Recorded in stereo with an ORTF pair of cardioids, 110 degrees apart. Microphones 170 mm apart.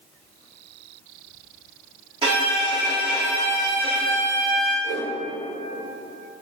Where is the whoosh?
55° right, 0.6 m.